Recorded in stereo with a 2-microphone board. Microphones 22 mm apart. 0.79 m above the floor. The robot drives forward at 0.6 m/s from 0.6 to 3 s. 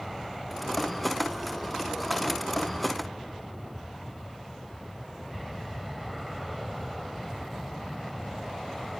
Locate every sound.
0.0 s an aircraft: centre (ahead or behind)